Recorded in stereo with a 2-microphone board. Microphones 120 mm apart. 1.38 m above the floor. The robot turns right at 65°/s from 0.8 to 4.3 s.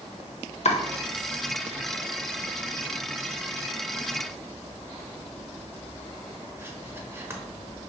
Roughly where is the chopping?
Left.